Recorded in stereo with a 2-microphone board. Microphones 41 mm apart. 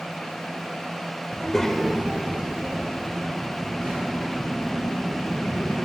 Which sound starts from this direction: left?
A child speaking, at 1.3 s.